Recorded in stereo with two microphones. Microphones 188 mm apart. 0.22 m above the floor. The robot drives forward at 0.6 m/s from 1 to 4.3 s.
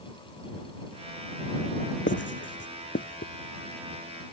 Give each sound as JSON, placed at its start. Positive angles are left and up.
{"t": 2.1, "sound": "writing", "side_deg": 80}